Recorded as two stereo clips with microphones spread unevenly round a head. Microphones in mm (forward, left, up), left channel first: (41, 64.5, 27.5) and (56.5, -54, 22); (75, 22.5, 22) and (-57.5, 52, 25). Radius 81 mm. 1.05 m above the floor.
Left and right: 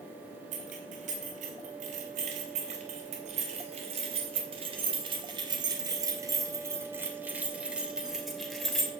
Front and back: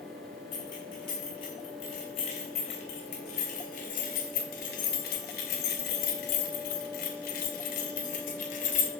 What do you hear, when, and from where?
0.5 s keys jangling: 75° right, 4 m; by 8.9 s 10° left, 2.5 m